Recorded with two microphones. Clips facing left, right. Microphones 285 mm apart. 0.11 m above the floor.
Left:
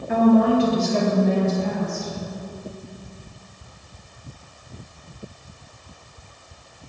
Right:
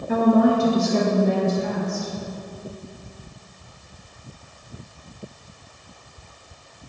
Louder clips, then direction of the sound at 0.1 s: Left 1 dB; 40° right (ahead or behind).